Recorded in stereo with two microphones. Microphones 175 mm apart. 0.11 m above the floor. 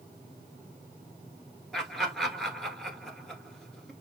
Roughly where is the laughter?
Centre.